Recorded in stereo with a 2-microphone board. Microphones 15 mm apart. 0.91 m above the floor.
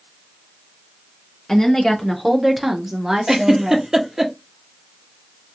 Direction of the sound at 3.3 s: 30° right (ahead or behind).